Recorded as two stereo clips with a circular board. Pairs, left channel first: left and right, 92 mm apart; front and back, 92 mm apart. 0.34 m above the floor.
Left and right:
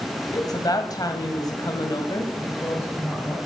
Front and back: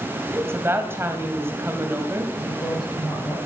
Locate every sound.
0.3 s a woman speaking: 120° left, 2 m
2.4 s a woman speaking: 30° left, 8.5 m